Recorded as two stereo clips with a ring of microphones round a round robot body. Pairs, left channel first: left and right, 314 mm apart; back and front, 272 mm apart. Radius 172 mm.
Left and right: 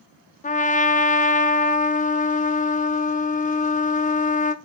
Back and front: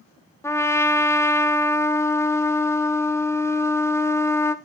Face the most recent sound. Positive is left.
turn(degrees=110)